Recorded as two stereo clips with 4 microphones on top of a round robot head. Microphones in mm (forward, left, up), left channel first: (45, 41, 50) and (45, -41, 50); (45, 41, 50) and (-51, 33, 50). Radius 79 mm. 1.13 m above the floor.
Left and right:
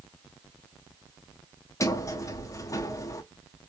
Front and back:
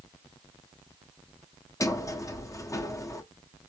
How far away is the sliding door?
About 1.0 m.